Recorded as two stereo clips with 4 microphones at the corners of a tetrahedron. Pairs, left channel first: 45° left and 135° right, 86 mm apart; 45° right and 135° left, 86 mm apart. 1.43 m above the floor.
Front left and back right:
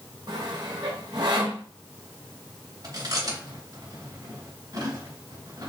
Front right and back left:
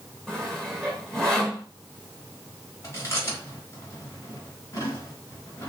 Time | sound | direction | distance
0.3 | sawing | 125° right | 1.9 m
2.8 | chewing | 95° right | 3 m